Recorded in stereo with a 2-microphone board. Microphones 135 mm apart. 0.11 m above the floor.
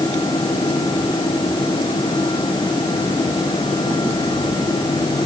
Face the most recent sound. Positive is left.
No sound to turn to.